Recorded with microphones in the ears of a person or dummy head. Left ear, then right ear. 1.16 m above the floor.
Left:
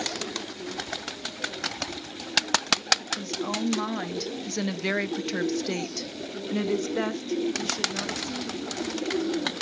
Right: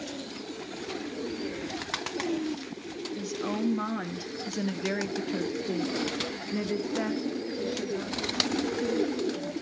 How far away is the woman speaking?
About 1.9 m.